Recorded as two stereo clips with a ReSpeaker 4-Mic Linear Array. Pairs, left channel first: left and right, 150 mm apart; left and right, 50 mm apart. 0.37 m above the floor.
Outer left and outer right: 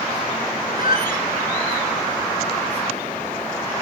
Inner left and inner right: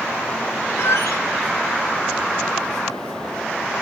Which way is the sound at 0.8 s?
75° left (ahead or behind).